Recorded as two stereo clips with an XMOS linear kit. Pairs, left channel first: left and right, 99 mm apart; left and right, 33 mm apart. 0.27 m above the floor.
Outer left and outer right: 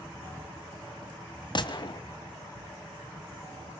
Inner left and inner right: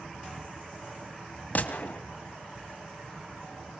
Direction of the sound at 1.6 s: 50° left (ahead or behind).